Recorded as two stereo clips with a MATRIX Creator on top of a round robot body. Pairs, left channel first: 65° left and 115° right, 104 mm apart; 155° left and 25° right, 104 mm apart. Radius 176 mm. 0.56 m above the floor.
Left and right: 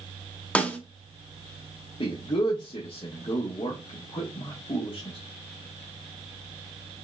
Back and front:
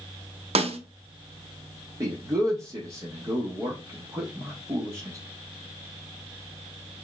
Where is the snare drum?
10° right, 0.9 m.